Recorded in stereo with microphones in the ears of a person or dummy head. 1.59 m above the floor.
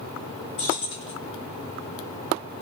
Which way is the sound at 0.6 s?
30° left (ahead or behind).